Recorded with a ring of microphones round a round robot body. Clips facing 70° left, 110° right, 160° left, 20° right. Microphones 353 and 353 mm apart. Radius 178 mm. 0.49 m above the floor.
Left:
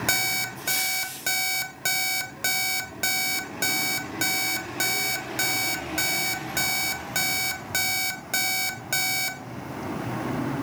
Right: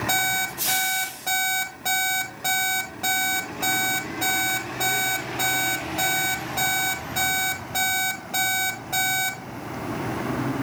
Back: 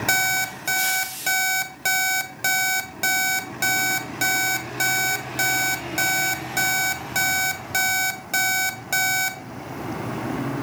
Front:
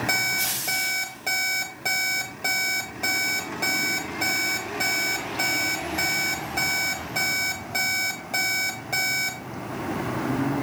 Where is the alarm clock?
105° left, 1.3 m.